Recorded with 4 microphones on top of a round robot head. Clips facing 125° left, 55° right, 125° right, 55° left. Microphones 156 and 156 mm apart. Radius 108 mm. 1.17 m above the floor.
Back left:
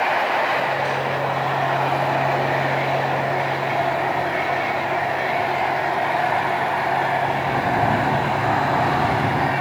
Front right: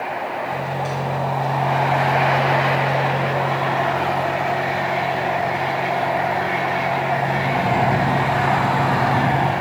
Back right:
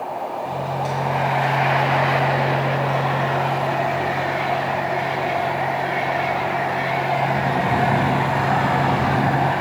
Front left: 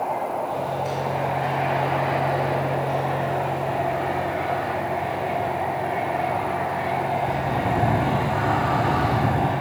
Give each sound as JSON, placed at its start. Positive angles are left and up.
{"t": 0.5, "sound": "a microwave", "azimuth_deg": -120, "distance_m": 6.5}